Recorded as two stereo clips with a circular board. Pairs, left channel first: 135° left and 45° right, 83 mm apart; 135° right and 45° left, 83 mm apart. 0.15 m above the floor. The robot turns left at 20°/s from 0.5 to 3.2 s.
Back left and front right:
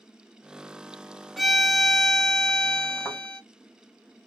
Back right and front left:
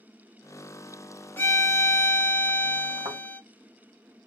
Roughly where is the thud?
Left.